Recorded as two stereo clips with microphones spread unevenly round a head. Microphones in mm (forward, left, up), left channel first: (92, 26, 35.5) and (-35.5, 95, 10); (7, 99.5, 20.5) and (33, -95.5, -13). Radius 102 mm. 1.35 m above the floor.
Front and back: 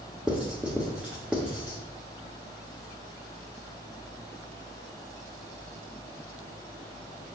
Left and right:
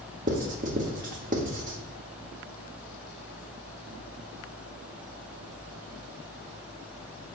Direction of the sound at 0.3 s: 110° right.